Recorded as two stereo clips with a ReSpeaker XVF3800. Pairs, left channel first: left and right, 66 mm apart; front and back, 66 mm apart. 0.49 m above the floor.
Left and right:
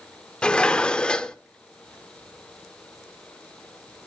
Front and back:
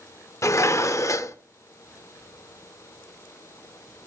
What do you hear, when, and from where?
0.4 s dishes clattering: 15° left, 0.7 m